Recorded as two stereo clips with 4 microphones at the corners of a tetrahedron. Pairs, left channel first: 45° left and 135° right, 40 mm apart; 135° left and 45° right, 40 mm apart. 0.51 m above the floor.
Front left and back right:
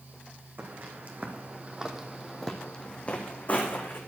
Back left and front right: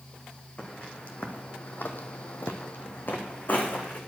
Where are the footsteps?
165° right, 2.0 m; by 4.0 s 85° left, 2 m.